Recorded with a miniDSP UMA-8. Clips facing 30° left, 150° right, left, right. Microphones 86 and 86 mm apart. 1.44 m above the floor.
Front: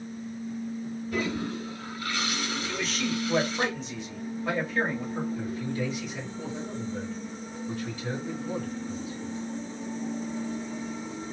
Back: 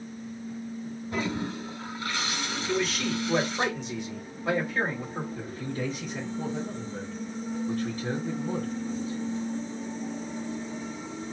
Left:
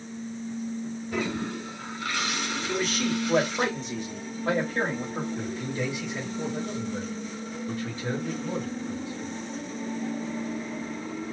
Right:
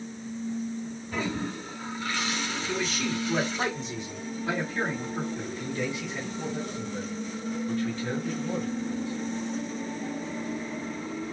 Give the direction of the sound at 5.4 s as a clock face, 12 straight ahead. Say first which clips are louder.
Front 2 dB, left 1 dB; 7 o'clock.